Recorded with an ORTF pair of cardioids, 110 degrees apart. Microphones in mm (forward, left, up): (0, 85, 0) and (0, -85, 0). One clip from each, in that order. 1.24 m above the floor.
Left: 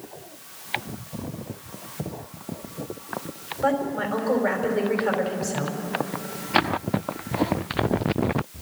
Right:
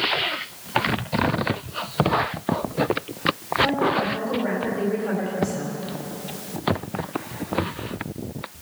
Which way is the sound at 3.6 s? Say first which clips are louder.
Right 2 dB; 50° left.